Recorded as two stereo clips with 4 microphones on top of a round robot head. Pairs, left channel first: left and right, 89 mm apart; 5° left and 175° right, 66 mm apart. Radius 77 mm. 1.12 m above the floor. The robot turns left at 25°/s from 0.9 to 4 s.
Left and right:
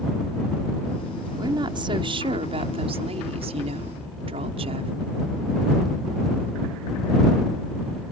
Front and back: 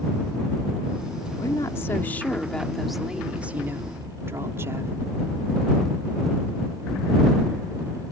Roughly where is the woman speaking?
Ahead right.